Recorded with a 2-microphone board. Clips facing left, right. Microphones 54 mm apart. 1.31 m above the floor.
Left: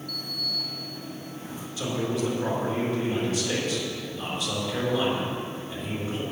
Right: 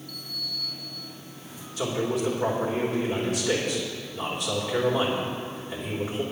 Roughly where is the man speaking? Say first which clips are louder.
Right 1 dB; right.